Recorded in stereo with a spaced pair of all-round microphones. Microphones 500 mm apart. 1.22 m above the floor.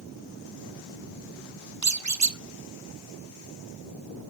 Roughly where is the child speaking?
I don't hear a child speaking.